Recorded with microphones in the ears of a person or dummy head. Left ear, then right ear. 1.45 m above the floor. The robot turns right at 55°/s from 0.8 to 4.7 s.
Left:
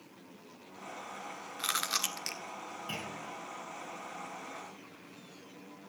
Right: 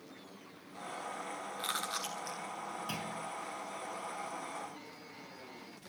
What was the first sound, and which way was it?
Chewing, 15° left (ahead or behind).